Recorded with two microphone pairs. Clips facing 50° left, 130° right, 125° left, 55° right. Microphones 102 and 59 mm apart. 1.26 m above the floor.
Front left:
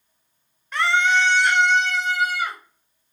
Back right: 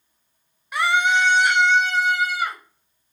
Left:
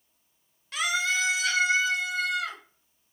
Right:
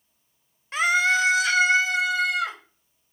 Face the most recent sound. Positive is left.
turn(degrees=-55)